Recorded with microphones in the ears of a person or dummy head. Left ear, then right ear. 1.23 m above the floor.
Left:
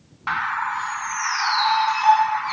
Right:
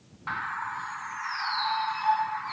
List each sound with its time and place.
0.3 s a bird: 20° left (ahead or behind)